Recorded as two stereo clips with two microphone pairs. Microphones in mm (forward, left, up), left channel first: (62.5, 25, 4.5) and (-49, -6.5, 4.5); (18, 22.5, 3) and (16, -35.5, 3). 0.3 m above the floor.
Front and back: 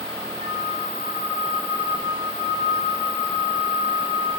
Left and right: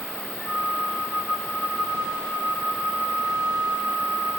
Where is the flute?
15° right, 6 m.